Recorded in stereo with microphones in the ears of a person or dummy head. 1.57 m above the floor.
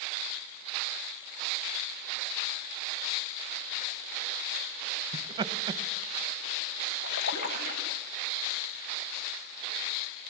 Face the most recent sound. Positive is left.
turn(degrees=65)  # may be behind; listen again after turning